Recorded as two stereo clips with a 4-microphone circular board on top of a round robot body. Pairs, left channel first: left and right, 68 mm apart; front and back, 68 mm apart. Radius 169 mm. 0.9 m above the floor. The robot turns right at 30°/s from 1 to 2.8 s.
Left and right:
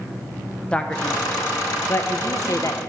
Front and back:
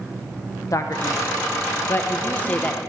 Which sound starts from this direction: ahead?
A man speaking, at 0.7 s.